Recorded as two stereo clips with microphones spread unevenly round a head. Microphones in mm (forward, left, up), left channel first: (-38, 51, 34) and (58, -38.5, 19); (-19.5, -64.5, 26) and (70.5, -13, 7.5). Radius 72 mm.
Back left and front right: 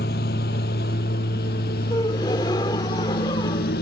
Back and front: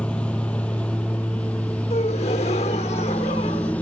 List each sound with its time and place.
0.0 s a lawn mower: 130° left
1.9 s a gasp: 165° right